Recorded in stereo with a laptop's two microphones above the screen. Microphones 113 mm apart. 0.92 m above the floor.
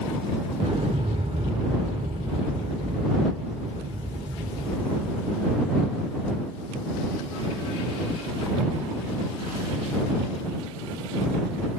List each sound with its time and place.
0.6 s an explosion: 60° right (ahead or behind)